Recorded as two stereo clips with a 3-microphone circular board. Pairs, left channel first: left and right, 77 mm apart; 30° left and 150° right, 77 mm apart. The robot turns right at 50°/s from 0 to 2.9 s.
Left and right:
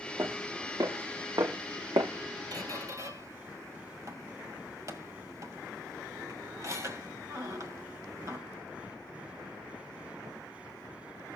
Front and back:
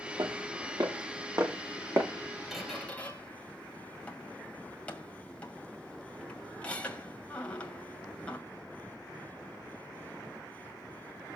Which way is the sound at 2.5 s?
65° right.